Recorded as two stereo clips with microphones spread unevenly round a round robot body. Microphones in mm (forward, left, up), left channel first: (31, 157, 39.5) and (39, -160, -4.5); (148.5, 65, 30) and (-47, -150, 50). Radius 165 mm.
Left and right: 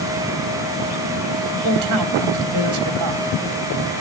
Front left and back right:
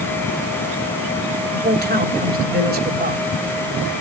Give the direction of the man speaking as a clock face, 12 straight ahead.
3 o'clock.